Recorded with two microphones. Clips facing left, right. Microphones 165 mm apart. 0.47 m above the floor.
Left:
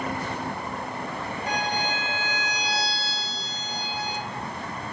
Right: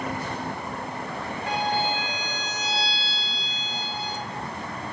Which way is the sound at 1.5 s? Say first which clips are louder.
Right 3 dB; 45° right (ahead or behind).